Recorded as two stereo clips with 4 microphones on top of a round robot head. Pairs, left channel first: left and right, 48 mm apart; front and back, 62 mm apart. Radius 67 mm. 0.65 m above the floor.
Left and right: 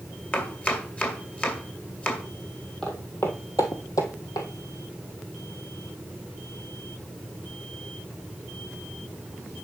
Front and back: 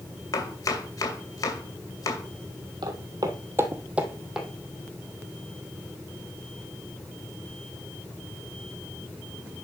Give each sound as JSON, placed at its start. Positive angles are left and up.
{"t": 0.3, "sound": "chopping", "azimuth_deg": 30, "distance_m": 2.5}
{"t": 2.8, "sound": "footsteps", "azimuth_deg": 170, "distance_m": 1.5}